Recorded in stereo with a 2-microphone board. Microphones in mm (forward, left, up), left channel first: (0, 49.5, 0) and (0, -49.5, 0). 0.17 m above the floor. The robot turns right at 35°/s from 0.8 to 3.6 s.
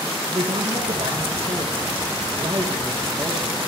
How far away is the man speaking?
About 4.5 m.